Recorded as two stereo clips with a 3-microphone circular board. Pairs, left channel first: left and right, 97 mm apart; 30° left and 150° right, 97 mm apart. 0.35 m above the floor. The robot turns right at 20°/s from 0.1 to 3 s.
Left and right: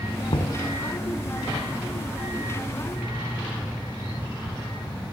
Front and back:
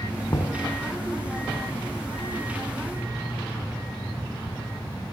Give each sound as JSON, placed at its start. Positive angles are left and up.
{"t": 0.3, "sound": "knocking", "azimuth_deg": 80, "distance_m": 2.5}